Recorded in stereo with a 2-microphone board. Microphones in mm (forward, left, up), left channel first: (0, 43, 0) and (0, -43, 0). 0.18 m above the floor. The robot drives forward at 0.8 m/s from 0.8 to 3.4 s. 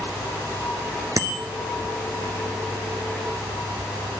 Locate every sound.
1.2 s a bicycle bell: 40° right (ahead or behind), 2 m; by 1.4 s 45° right (ahead or behind), 2 m